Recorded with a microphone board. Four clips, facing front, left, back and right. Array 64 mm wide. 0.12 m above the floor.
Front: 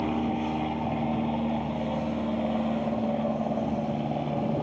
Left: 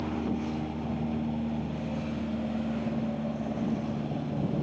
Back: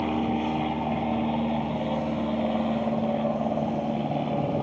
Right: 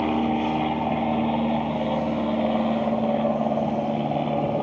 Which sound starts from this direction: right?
An aircraft, at 0.0 s.